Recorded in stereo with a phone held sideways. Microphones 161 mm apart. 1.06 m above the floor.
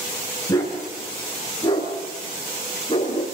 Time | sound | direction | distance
0.5 | a dog barking | 20° left (ahead or behind) | 6 m